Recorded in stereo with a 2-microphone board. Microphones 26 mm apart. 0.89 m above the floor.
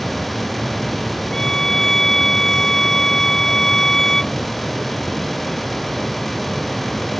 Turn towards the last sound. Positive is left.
turn(degrees=20)  # may be behind; listen again after turning